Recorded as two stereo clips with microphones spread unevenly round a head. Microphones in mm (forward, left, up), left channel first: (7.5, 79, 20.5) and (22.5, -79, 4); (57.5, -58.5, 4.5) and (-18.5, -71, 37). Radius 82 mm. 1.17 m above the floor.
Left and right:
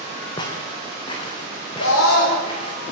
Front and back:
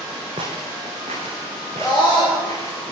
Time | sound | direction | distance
0.4 | footsteps | 160° left | 4 m
1.8 | a scream | 95° left | 6 m